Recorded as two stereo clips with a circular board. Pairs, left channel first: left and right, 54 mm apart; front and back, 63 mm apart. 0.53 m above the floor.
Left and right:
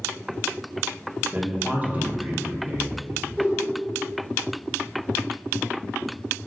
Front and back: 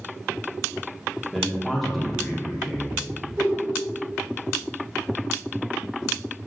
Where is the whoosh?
150° right, 1.5 m.